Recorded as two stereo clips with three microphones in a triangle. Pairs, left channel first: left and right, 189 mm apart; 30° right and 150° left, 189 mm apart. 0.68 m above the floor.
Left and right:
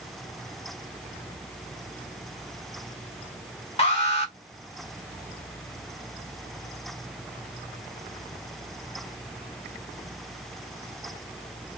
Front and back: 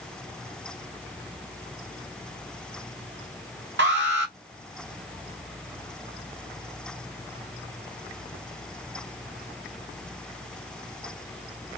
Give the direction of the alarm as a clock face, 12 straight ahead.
7 o'clock.